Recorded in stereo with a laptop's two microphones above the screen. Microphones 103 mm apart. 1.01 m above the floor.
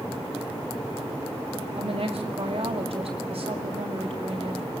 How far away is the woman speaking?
About 2 m.